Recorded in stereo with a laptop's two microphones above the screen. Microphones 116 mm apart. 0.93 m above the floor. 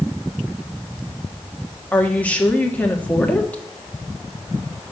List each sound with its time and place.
1.9 s a woman speaking: 10° left (ahead or behind), 1.4 m